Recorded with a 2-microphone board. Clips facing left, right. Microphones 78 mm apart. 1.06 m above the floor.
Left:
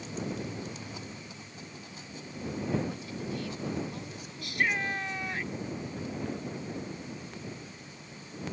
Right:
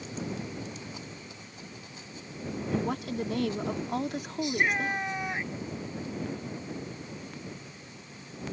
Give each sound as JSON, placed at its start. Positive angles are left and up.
{"t": 2.7, "sound": "a woman speaking", "side_deg": -75}
{"t": 4.4, "sound": "a shout", "side_deg": -20}